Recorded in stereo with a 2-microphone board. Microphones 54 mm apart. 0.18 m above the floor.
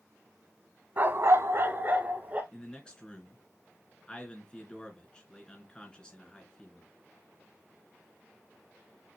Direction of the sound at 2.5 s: 15° left (ahead or behind).